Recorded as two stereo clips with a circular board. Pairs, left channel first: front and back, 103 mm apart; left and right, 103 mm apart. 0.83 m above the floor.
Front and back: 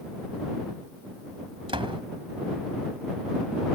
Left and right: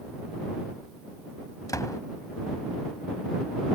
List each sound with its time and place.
1.7 s a door slam: 145° left